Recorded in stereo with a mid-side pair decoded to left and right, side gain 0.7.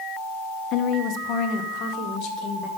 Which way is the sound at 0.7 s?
50° left.